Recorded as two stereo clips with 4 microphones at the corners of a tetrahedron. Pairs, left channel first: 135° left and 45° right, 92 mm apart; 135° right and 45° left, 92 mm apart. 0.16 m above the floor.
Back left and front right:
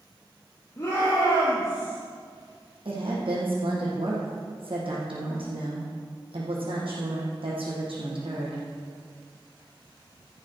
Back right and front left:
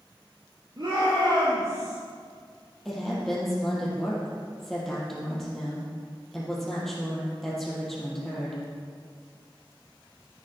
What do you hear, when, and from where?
0.8 s a shout: 80° left, 4 m; by 2.0 s 95° left, 5 m
2.9 s a woman speaking: 50° right, 5 m